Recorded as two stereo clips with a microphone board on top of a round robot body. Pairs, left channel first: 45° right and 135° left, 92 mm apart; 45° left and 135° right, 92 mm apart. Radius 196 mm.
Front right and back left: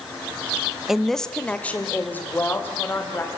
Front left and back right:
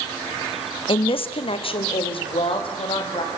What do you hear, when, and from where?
0.9 s a woman speaking: 50° left, 1.2 m; by 3.3 s 20° left, 4.5 m